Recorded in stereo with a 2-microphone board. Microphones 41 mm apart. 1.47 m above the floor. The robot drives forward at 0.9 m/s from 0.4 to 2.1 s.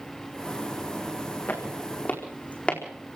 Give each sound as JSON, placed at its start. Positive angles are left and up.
{"t": 1.5, "sound": "footsteps", "side_deg": 50, "distance_m": 4.5}